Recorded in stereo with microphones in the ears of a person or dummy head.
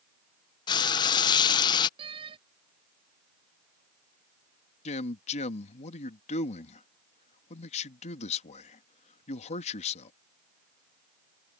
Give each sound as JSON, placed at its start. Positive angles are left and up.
{"t": 0.7, "sound": "frying", "side_deg": 25}
{"t": 2.0, "sound": "a door slam", "side_deg": -25}
{"t": 4.8, "sound": "a man speaking", "side_deg": 40}